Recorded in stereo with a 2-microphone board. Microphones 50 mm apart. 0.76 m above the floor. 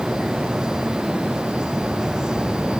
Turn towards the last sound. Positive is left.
No sound to turn to.